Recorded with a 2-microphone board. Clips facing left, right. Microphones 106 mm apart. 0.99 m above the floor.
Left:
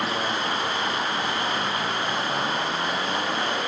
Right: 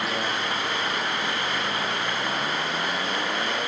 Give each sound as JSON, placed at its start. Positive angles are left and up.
{"t": 0.0, "sound": "running water", "side_deg": 30, "distance_m": 1.6}